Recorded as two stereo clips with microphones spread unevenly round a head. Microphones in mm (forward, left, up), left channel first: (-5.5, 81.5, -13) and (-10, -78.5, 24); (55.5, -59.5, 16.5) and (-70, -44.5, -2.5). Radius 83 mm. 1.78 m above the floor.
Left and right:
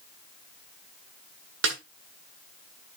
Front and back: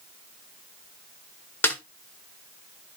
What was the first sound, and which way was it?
A snare drum, 80° right.